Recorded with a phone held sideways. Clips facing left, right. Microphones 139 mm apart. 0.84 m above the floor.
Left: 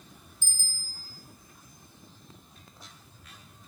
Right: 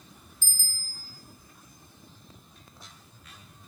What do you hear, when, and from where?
0.4 s a bicycle bell: 20° left (ahead or behind), 3 m